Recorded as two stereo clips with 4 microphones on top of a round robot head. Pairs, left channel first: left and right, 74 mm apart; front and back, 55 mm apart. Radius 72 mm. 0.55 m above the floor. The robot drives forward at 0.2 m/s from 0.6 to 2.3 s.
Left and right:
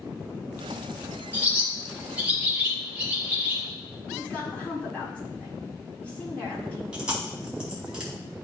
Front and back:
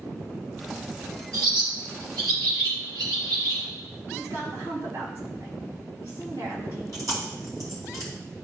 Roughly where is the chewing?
Behind.